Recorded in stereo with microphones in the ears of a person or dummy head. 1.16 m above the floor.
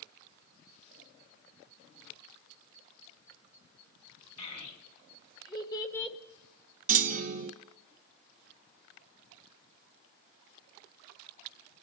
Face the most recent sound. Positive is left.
turn(degrees=-45)  # may be behind; listen again after turning